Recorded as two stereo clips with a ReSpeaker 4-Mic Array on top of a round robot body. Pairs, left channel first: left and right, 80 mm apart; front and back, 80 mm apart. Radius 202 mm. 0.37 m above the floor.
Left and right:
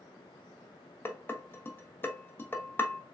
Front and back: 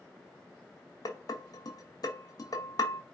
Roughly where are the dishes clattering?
Ahead left.